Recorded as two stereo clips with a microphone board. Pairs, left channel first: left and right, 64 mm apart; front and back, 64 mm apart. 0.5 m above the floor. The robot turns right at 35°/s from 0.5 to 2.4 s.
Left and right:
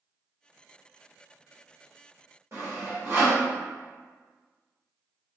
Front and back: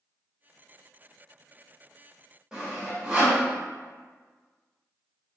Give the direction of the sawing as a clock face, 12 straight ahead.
4 o'clock.